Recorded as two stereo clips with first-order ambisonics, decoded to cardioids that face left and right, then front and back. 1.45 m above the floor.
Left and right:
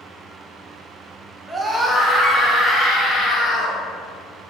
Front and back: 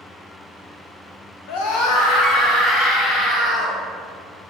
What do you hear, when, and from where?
1.5 s a scream: 10° right, 1.5 m; by 3.8 s 35° left, 4 m